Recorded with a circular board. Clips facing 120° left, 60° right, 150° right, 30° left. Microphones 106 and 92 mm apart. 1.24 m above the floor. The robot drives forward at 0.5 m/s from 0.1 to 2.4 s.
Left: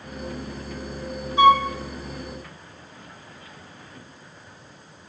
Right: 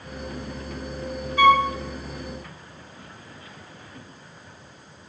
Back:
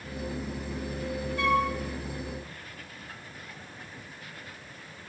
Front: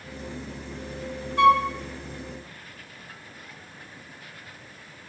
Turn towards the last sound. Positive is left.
turn(degrees=65)